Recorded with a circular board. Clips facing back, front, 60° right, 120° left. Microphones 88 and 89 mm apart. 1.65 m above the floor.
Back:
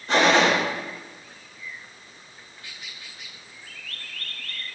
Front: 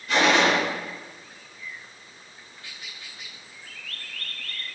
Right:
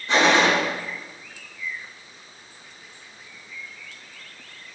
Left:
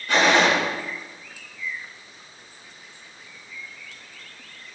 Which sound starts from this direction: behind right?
A gunshot, at 0.1 s.